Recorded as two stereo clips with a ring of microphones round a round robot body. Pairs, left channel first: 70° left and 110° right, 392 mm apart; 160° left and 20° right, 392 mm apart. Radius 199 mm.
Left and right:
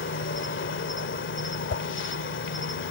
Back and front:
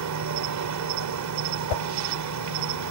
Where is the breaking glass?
I don't hear breaking glass.